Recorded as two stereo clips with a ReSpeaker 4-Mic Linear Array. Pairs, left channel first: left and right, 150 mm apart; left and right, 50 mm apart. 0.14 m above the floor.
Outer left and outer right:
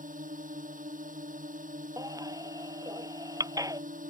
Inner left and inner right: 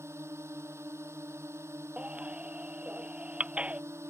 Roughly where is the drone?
Right.